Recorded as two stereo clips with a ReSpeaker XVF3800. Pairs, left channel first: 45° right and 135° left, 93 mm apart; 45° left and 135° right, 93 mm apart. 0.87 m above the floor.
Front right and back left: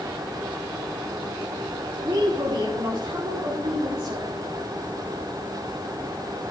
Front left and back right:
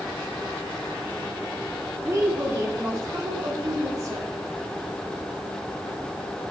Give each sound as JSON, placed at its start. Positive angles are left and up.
{"t": 2.0, "sound": "a woman speaking", "azimuth_deg": 165, "distance_m": 3.0}